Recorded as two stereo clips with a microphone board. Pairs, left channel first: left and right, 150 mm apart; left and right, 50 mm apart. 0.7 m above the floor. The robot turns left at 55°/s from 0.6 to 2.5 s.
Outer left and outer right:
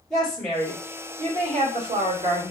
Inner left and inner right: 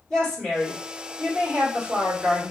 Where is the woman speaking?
Straight ahead, 1.9 m; by 2.5 s 100° right, 1.9 m.